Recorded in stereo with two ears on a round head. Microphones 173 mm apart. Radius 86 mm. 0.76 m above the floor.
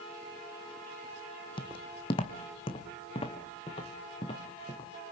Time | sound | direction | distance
1.6 | footsteps | 30° left (ahead or behind) | 1.4 m